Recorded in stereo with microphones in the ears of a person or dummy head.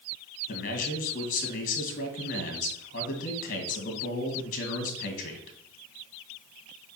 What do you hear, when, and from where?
0.5 s a man speaking: 45° left (ahead or behind), 2.5 m